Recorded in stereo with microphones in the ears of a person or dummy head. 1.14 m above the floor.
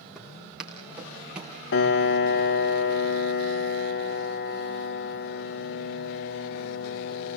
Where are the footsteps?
5° right (ahead or behind), 4 m.